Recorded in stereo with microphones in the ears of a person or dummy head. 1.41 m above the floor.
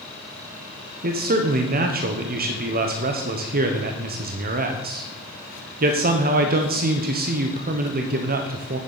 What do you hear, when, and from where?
1.0 s a man speaking: 40° right (ahead or behind), 0.9 m